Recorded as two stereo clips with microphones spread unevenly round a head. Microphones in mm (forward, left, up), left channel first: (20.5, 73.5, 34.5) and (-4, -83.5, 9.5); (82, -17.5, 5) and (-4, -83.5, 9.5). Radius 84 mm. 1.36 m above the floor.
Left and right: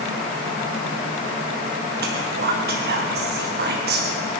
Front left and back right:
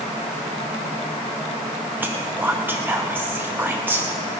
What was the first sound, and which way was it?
Whispering, 70° right.